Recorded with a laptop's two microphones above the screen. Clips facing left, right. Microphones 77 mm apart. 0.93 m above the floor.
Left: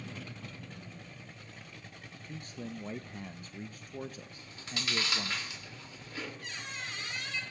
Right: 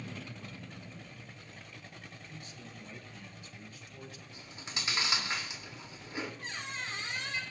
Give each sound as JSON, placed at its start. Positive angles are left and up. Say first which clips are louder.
{"t": 2.2, "sound": "a man speaking", "louder": "left 6 dB", "side_deg": 45, "distance_m": 0.5}
{"t": 4.3, "sound": "chewing", "louder": "left 1 dB", "side_deg": -20, "distance_m": 2.0}
{"t": 6.4, "sound": "a squeak", "louder": "right 2 dB", "side_deg": -35, "distance_m": 3.0}